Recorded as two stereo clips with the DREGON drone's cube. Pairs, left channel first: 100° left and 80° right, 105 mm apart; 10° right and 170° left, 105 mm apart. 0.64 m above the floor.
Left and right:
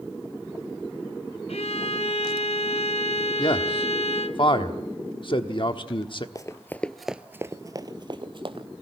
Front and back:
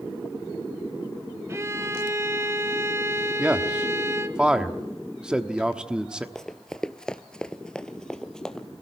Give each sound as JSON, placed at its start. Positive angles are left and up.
{"t": 1.5, "sound": "a violin", "azimuth_deg": 110, "distance_m": 0.7}
{"t": 3.4, "sound": "a man speaking", "azimuth_deg": 90, "distance_m": 1.1}
{"t": 6.3, "sound": "running footsteps", "azimuth_deg": 70, "distance_m": 0.7}